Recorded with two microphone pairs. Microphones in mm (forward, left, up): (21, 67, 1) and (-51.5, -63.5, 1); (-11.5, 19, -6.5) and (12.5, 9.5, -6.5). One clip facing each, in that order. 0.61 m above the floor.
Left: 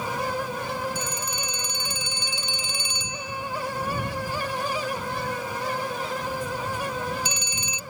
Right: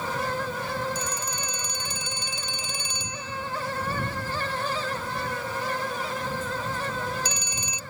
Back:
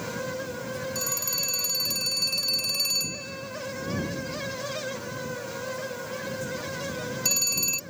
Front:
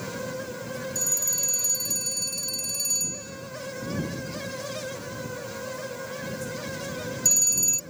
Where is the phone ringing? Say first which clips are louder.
Left 1 dB, front 3 dB; 165° right.